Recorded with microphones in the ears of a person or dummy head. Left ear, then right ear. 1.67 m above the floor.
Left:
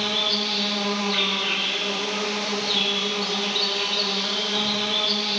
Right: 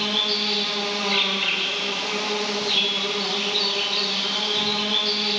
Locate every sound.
0.0 s an insect: 65° right (ahead or behind), 3.5 m